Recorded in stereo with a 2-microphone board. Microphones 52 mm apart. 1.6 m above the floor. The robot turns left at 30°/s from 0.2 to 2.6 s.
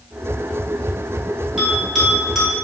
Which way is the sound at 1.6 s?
15° right (ahead or behind).